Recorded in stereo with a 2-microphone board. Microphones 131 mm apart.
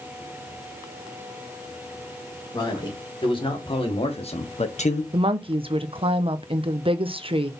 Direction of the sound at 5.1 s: 45° right (ahead or behind).